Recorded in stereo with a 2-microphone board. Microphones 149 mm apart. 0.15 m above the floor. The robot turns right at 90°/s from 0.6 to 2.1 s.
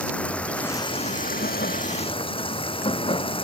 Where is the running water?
10° left; by 3.5 s 145° left.